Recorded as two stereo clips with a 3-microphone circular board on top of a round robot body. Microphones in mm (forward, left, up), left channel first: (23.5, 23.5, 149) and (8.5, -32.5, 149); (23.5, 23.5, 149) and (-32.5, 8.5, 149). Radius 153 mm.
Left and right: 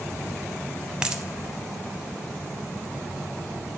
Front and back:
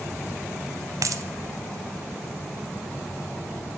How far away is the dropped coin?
About 0.8 m.